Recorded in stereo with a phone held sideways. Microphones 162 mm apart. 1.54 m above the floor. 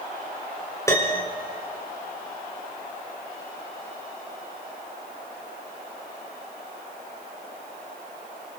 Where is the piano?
20° left (ahead or behind), 4 m.